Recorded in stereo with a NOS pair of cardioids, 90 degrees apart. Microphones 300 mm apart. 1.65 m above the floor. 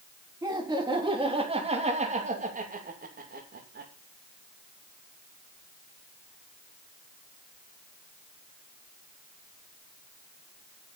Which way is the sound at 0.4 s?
10° right.